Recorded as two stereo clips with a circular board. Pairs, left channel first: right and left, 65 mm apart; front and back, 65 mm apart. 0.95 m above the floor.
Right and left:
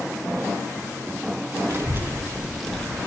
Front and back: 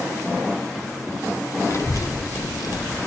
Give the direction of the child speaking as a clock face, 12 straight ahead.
11 o'clock.